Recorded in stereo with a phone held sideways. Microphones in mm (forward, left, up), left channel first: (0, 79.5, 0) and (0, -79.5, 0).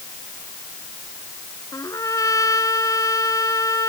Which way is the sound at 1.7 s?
20° left (ahead or behind).